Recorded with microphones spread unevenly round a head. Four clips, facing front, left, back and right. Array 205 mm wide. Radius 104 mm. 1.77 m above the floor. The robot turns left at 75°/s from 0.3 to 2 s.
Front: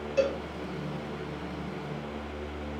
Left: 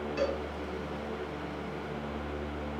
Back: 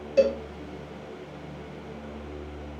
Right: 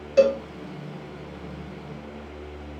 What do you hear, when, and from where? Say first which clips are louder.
0.2 s a cowbell: right 14 dB, back 6 dB; 140° right, 0.7 m; by 0.4 s 150° right, 0.7 m